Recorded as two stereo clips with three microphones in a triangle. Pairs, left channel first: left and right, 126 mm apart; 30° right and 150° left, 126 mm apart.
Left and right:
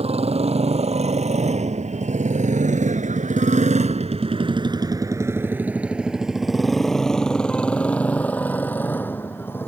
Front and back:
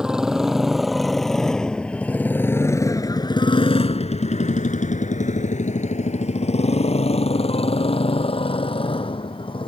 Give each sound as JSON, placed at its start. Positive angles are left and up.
{"t": 0.0, "sound": "a motorcycle", "azimuth_deg": -125}